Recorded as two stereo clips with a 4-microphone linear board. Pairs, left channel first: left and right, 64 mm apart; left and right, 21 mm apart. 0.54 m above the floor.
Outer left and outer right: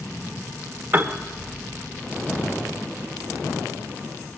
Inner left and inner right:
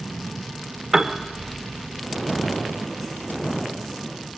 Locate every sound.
0.9 s a piano: 30° right (ahead or behind), 1.6 m